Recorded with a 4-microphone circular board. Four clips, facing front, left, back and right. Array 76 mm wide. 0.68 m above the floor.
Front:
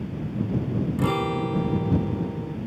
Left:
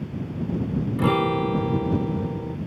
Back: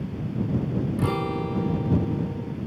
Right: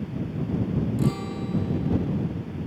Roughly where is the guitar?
Left.